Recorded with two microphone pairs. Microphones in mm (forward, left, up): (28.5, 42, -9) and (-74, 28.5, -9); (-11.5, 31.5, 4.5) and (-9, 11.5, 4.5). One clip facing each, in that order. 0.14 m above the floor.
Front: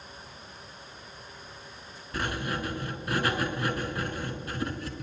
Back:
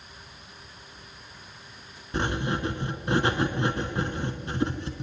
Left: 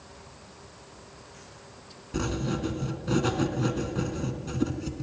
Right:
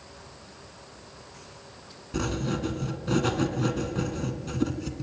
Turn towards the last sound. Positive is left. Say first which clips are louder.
# back 4 dB, right 1 dB
turn(degrees=-160)